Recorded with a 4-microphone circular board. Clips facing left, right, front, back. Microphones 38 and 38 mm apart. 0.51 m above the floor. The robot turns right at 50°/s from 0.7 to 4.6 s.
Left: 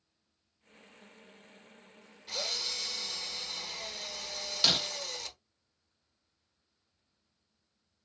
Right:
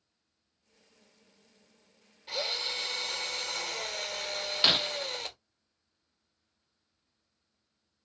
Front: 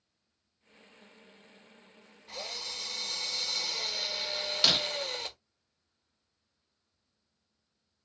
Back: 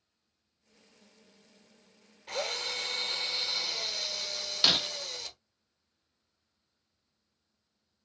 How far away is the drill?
About 0.9 m.